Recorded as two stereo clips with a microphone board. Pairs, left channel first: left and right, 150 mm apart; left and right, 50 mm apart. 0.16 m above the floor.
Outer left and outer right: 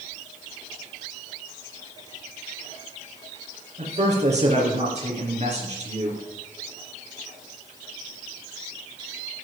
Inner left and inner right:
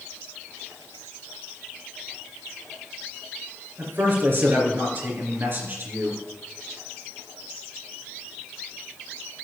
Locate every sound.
3.8 s a man speaking: 50° right (ahead or behind), 3 m